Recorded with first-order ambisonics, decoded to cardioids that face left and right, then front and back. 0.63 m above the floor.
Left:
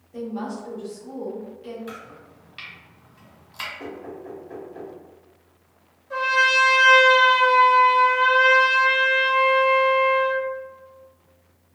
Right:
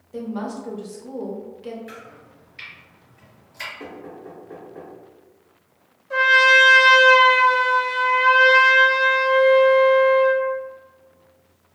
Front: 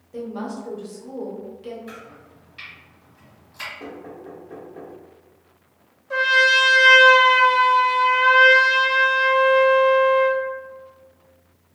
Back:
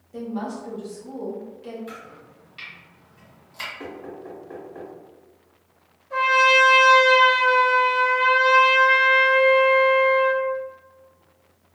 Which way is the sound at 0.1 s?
70° right.